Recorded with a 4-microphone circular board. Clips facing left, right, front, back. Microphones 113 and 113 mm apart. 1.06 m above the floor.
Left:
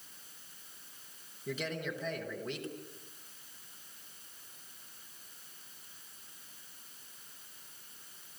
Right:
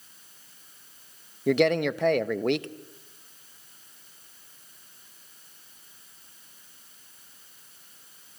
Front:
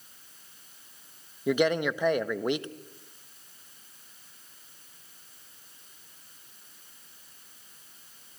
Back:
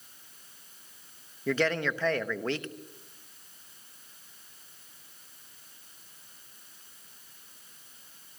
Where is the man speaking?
75° right, 1.0 m.